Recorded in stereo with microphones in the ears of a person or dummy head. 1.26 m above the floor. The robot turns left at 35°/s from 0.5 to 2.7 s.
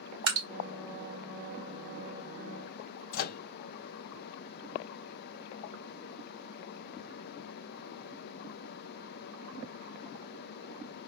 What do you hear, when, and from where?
0.3 s dripping: 70° right (ahead or behind), 1.4 m
3.1 s a microwave: 55° left (ahead or behind), 0.6 m